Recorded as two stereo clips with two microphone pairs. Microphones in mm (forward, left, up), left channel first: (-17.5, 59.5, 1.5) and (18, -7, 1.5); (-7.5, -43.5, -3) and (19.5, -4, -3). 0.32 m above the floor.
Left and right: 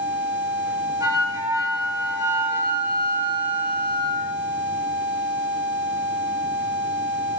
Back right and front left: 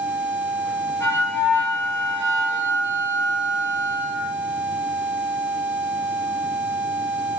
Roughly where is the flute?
Right.